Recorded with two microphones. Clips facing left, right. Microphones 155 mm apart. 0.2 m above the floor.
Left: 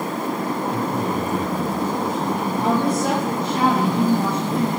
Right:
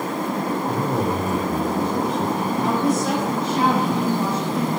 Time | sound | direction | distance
0.7 | a man speaking | 60° right (ahead or behind) | 3.5 m
2.6 | a woman speaking | 65° left (ahead or behind) | 7.5 m